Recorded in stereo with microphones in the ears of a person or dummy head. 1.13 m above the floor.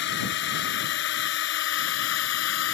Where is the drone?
55° left (ahead or behind); by 2.8 s 60° left (ahead or behind).